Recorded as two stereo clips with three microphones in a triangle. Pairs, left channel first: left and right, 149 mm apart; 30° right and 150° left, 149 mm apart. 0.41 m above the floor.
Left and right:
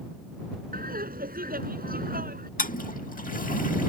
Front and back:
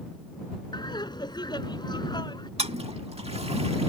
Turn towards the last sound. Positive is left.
turn(degrees=105)